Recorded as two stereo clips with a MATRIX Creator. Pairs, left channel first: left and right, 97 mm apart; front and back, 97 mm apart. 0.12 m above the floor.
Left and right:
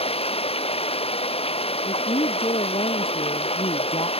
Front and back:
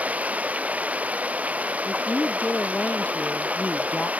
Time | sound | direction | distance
0.0 | running water | 105° left | ?
1.9 | a woman speaking | 75° left | ?